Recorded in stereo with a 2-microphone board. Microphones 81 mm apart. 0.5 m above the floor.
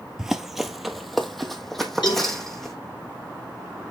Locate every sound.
0.2 s running footsteps: 5° right (ahead or behind), 0.7 m; by 2.8 s 5° left (ahead or behind), 1.9 m
2.0 s a cowbell: 65° left (ahead or behind), 2.0 m